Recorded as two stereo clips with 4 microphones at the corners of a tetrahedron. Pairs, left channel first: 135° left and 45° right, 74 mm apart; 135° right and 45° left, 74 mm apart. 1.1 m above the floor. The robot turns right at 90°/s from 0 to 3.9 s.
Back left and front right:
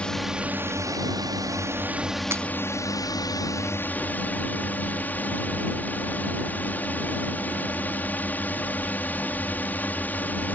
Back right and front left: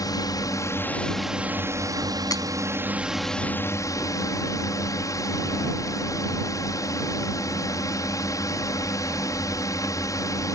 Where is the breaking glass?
100° right; by 2.4 s 85° right.